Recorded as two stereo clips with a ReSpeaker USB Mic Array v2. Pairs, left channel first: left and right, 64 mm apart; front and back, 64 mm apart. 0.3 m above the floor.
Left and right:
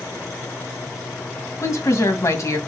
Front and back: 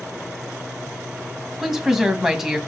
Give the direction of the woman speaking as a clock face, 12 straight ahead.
9 o'clock.